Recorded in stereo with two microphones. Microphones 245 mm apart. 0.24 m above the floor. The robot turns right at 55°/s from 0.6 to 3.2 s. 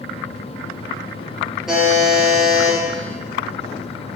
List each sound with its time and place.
1.7 s a buzzer: straight behind, 5 m; by 2.8 s 115° right, 5 m